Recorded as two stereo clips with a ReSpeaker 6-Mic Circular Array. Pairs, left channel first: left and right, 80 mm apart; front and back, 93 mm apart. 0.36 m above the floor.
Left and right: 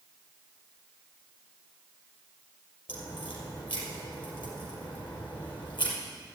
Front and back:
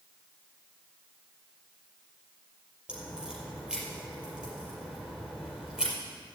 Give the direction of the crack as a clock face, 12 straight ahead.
9 o'clock.